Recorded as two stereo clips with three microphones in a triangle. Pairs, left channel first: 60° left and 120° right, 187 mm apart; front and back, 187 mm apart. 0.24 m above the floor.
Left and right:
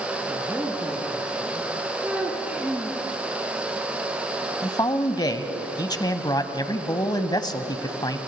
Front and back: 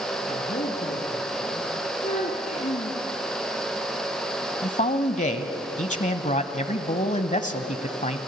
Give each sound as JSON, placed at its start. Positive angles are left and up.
{"t": 0.3, "sound": "a man speaking", "azimuth_deg": -40, "distance_m": 3.0}
{"t": 2.0, "sound": "a child speaking", "azimuth_deg": -40, "distance_m": 1.7}
{"t": 4.6, "sound": "a man speaking", "azimuth_deg": 5, "distance_m": 1.2}